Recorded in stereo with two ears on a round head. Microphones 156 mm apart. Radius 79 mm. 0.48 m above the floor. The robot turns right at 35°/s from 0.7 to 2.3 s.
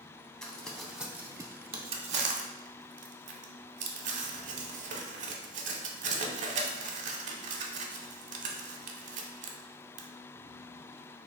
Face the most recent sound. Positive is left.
turn(degrees=-45)  # may be behind; listen again after turning